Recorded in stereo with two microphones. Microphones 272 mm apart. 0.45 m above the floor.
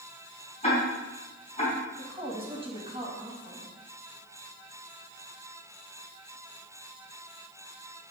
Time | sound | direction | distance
0.6 | ticking | 25° left (ahead or behind) | 4 m
2.0 | a woman speaking | 20° right (ahead or behind) | 2.5 m